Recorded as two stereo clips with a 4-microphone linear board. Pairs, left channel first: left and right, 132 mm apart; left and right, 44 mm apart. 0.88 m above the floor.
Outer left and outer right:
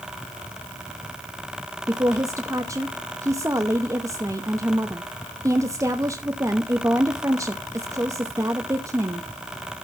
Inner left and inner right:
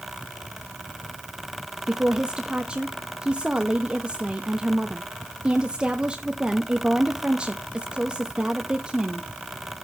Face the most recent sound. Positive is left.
turn(degrees=-20)  # may be behind; listen again after turning